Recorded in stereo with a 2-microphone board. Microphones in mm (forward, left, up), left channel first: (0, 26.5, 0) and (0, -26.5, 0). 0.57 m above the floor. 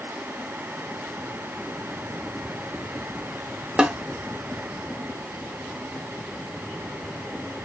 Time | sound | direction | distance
3.8 | a snare drum | 20° right (ahead or behind) | 0.8 m